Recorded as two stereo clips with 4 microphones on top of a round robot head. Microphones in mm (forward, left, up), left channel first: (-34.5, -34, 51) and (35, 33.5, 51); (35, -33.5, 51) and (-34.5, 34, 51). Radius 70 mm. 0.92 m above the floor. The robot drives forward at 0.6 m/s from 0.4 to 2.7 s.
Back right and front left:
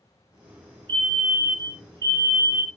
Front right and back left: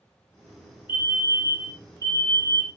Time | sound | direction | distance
0.9 | a fire alarm | 70° left | 2.5 m